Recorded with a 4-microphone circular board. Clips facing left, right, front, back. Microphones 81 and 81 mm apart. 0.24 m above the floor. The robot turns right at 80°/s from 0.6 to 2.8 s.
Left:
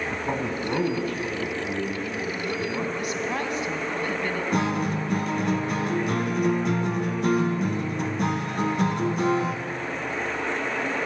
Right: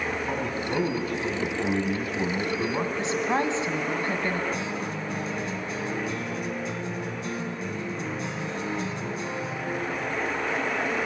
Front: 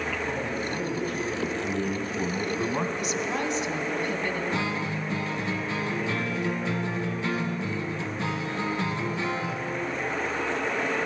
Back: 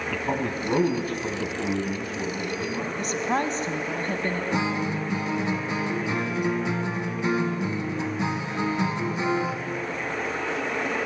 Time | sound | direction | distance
0.1 | a man speaking | 155° left | 2.0 m
3.0 | a woman speaking | 150° right | 1.8 m
4.5 | a guitar | 110° left | 1.2 m